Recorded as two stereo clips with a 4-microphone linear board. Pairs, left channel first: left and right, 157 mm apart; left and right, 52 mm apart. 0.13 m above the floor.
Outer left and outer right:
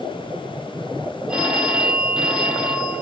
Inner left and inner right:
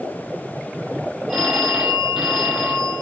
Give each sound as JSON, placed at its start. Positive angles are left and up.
{"t": 1.3, "sound": "a phone ringing", "side_deg": -5, "distance_m": 3.5}